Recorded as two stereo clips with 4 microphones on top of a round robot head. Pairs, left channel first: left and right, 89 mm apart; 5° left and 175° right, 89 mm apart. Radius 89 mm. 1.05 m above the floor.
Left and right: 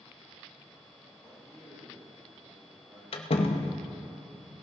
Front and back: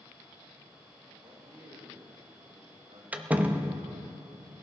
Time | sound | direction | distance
1.2 | a man speaking | 140° right | 7 m
3.1 | a door slam | 110° left | 0.9 m